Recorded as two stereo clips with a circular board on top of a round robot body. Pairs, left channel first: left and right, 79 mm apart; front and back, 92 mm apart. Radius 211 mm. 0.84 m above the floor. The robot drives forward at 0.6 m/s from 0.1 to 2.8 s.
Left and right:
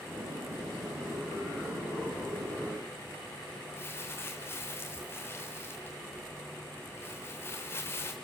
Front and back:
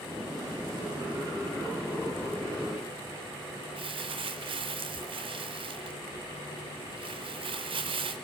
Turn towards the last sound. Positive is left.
turn(degrees=155)